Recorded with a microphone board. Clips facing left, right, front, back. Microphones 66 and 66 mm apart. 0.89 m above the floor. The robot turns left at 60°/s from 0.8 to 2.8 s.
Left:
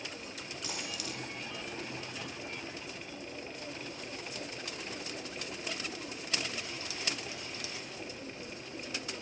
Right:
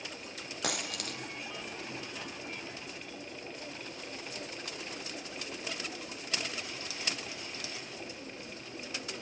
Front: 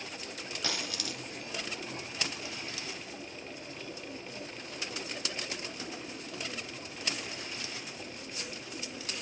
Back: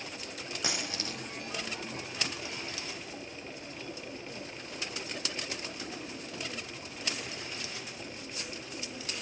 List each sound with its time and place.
0.6 s a dropped coin: 110° right, 2.5 m; by 1.2 s 130° right, 2.5 m